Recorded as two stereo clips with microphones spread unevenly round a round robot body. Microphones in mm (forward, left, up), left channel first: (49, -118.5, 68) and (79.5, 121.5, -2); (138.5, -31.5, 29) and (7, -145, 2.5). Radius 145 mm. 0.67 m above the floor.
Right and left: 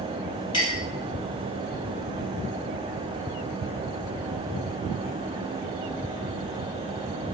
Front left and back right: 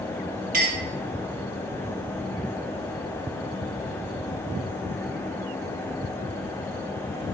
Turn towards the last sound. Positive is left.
turn(degrees=-175)